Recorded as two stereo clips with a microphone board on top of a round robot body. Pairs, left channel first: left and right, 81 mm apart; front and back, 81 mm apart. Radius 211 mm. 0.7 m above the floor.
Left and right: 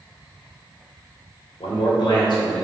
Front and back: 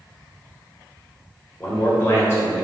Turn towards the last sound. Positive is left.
turn(degrees=60)